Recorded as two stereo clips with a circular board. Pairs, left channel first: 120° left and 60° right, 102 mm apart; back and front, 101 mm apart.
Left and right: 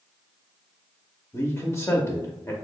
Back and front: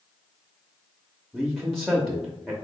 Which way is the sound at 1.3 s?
90° left.